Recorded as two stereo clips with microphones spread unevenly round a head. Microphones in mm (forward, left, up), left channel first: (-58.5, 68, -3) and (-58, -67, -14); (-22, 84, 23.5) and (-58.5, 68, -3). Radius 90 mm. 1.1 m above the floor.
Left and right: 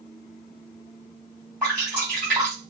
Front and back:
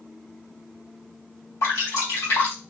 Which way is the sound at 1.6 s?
5° left.